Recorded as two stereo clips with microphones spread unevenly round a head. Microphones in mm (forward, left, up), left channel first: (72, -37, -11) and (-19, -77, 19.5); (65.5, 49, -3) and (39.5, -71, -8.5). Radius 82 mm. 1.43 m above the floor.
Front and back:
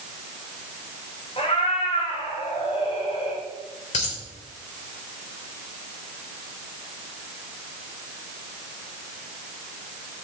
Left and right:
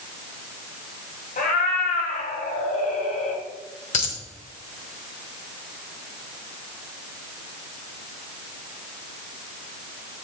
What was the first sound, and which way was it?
A cat meowing, 90° left.